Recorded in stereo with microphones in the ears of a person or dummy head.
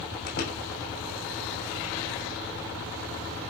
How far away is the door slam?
About 8 m.